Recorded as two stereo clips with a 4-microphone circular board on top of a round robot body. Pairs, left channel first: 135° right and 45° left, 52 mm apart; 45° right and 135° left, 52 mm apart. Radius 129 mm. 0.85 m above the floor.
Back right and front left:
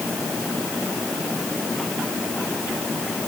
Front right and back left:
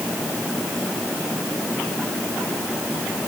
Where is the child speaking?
No child speaking in this recording.